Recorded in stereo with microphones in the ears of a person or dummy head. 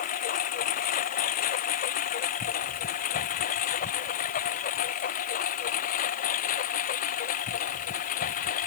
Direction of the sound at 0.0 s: 45° left (ahead or behind).